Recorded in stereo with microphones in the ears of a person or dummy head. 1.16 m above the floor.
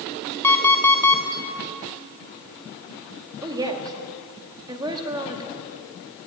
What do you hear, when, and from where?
0.4 s an alarm clock: 10° left (ahead or behind), 1.8 m
3.4 s a woman speaking: 25° right (ahead or behind), 1.9 m